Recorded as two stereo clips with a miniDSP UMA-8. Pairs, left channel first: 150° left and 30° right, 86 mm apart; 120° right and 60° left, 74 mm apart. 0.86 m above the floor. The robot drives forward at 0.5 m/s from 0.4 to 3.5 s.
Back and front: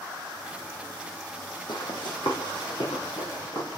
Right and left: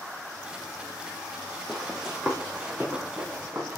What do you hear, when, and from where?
1.7 s running footsteps: 150° left, 1.5 m; by 3.8 s 130° left, 5 m